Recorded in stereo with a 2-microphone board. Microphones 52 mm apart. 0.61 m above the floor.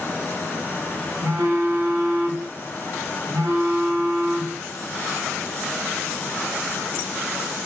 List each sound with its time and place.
1.2 s a phone buzzing: 75° right (ahead or behind), 0.7 m